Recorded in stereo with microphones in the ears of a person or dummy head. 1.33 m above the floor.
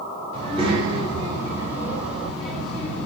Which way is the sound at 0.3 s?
35° right (ahead or behind).